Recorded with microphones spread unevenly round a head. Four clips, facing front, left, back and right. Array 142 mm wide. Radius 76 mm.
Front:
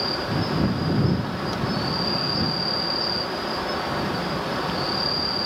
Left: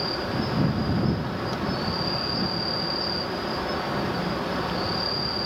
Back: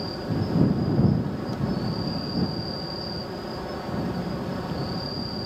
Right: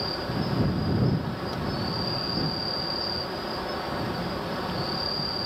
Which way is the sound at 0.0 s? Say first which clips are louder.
Left 2 dB, front 3 dB; 15° left.